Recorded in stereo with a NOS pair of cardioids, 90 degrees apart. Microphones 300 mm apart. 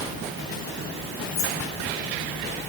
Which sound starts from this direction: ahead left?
Keys jangling, at 1.3 s.